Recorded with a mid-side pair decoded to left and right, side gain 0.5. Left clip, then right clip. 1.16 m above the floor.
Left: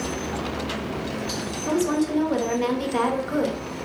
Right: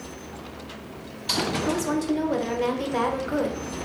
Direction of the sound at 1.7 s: 5° right.